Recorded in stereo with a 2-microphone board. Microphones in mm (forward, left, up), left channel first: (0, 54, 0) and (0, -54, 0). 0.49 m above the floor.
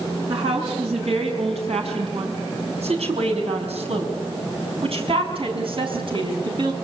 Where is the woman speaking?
60° right (ahead or behind), 6 m; by 6.7 s 50° right (ahead or behind), 6 m.